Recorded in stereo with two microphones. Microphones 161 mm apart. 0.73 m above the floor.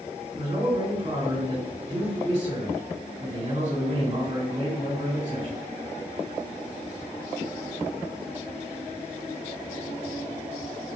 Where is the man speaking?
35° right (ahead or behind), 2 m.